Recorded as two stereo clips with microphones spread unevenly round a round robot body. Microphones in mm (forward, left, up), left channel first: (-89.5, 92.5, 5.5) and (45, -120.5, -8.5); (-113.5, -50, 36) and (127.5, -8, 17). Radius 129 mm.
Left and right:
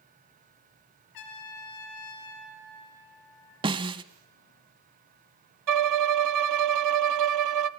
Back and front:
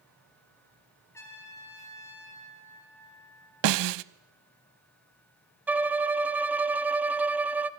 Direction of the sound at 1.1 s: 110° left.